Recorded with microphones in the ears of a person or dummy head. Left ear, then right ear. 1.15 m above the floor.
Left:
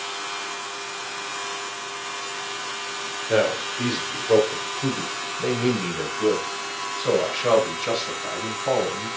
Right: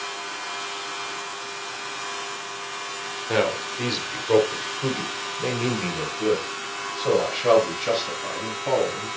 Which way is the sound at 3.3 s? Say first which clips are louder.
Left 2 dB; 25° right (ahead or behind).